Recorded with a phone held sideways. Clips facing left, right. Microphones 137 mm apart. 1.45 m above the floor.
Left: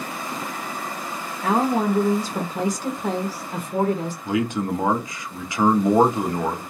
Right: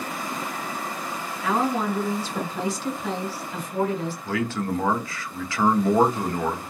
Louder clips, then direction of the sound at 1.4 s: Left 4 dB; 45° left (ahead or behind).